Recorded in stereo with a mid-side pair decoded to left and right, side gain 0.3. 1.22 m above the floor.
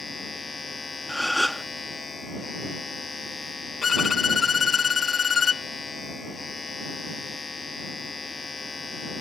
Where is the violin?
65° left.